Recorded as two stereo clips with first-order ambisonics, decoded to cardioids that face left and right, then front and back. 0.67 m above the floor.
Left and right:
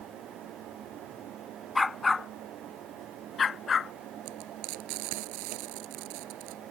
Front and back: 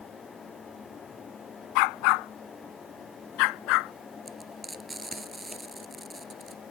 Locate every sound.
1.8 s a dog barking: 10° left; by 3.9 s 25° left
4.2 s frying: 95° right